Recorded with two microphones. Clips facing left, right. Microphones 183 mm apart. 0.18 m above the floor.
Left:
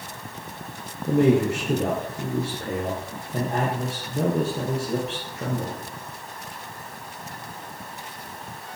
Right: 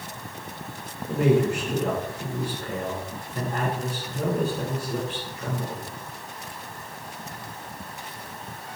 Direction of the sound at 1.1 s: 70° left (ahead or behind).